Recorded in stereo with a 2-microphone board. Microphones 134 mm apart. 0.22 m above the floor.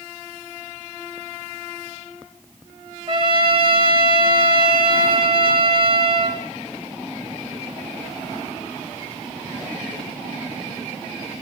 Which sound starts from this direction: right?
A trumpet, at 3.1 s.